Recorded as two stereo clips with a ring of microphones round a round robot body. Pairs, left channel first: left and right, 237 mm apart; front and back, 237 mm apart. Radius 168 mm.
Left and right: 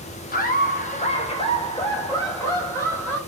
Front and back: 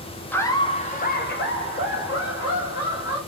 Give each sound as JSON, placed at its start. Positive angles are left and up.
{"t": 0.3, "sound": "laughter", "azimuth_deg": 80, "distance_m": 0.8}